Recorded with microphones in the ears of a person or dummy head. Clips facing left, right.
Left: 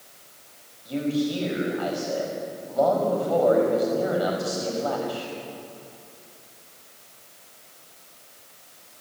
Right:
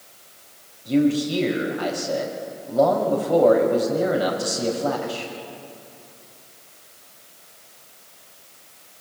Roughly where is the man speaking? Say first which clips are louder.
Right 6 dB; right.